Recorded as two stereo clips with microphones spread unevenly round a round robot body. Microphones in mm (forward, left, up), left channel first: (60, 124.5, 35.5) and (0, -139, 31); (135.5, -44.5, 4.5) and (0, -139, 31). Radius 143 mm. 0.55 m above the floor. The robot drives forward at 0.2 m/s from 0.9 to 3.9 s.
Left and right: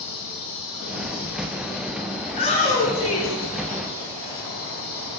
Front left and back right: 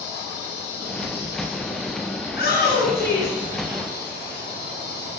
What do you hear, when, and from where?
0.0 s an insect: 120° left, 8 m; by 5.2 s 125° left, 8.5 m
2.2 s a shout: 140° left, 7 m; by 4.4 s 145° left, 7 m